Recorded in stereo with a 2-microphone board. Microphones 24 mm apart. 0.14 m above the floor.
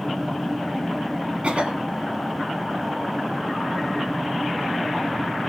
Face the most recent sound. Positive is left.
turn(degrees=-45)  # may be behind; listen again after turning